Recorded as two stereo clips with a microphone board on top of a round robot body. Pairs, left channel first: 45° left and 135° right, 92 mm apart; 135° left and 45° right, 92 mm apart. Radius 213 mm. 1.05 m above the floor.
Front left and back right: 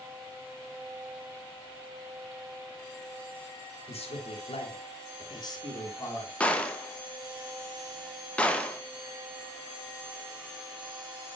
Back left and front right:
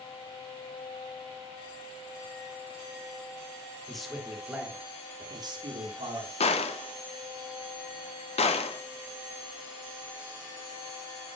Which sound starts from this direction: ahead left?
A man speaking, at 3.9 s.